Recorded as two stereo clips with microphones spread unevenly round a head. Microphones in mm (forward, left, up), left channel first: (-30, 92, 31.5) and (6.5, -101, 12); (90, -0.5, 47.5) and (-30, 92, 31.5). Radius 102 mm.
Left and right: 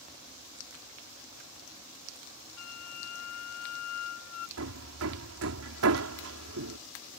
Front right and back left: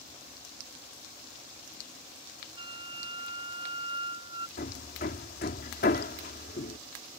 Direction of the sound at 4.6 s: 80° right.